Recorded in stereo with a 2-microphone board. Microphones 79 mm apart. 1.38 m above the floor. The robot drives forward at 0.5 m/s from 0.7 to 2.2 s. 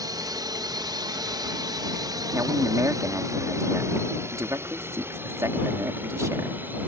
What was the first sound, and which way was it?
A drone, 55° right (ahead or behind).